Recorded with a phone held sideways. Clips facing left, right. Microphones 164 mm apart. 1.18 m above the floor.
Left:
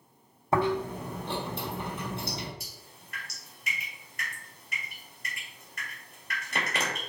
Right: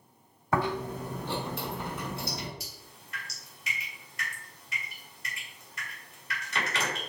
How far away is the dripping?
About 2.0 m.